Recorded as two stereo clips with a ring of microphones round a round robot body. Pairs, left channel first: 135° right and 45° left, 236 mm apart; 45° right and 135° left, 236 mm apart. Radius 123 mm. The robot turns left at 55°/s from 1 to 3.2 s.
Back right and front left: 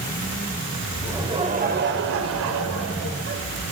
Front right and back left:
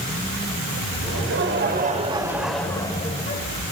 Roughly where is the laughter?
Behind left.